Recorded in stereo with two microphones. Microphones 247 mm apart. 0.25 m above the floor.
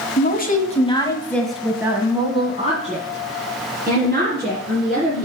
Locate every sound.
0.2 s a woman speaking: 40° left (ahead or behind), 1.3 m; by 5.2 s 45° right (ahead or behind), 3 m